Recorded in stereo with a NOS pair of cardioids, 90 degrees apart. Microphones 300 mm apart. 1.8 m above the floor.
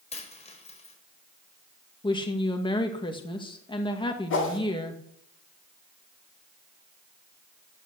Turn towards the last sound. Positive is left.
turn(degrees=40)